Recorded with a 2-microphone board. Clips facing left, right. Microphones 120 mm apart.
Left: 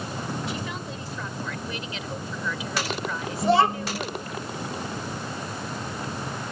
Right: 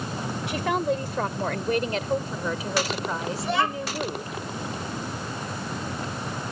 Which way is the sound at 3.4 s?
35° left (ahead or behind).